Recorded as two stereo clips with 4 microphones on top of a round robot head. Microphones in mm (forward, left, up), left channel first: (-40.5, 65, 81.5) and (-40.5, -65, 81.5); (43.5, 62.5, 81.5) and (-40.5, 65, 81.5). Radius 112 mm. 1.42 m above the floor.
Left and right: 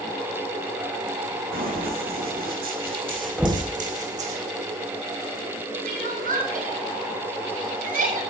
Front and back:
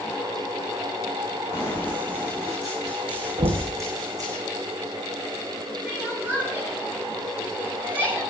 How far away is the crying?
About 7 m.